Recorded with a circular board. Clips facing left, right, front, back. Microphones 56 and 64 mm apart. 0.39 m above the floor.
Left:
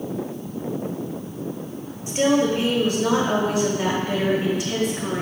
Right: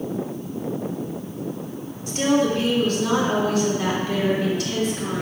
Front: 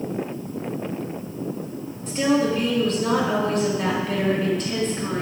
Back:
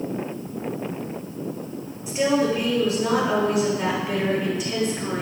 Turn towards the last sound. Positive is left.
turn(degrees=115)